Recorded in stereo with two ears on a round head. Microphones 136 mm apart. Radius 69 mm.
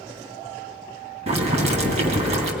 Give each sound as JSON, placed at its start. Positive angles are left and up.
{"t": 1.3, "sound": "boiling", "side_deg": -45, "distance_m": 3.0}